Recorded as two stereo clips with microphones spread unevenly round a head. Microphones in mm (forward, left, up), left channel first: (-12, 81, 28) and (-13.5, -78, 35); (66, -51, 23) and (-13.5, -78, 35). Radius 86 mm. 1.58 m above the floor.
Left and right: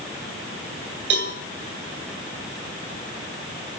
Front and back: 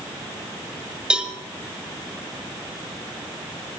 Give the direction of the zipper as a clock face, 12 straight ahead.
I don't hear a zipper.